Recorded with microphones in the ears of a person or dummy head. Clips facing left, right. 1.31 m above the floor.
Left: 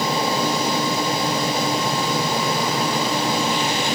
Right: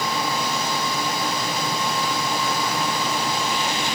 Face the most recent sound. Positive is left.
No sound to turn to.